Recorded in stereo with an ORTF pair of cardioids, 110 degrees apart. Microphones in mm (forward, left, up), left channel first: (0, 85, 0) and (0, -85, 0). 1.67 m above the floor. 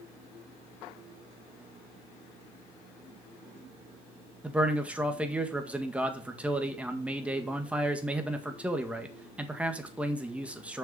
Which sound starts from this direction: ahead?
A man speaking, at 4.4 s.